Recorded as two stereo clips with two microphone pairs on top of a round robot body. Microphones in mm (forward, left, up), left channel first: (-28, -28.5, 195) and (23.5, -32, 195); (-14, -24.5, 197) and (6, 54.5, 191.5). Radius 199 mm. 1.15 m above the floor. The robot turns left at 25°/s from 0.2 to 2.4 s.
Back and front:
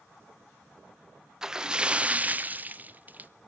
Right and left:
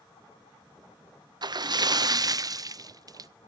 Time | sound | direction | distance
1.4 | a splash | 75° left | 0.7 m